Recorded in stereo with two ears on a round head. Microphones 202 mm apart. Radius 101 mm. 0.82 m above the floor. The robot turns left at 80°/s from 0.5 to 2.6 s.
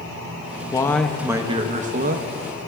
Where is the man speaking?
30° left, 0.7 m; by 2.3 s 95° right, 0.7 m.